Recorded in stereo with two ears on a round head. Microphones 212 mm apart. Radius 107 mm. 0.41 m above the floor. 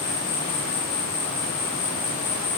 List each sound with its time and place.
0.0 s an insect: 25° left (ahead or behind), 3 m